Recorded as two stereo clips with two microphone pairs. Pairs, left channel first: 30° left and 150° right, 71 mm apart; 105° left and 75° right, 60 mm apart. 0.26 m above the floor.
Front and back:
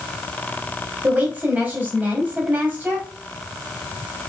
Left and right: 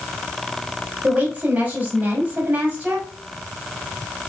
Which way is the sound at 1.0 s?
105° right.